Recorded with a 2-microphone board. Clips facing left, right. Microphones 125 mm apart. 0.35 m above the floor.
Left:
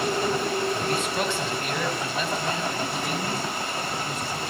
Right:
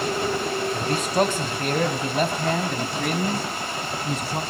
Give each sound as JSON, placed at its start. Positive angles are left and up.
{"t": 0.7, "sound": "a man speaking", "side_deg": -35, "distance_m": 2.0}